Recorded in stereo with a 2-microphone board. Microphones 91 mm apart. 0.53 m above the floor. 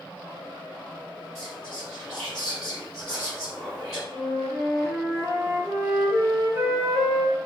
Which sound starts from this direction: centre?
Whispering, at 1.4 s.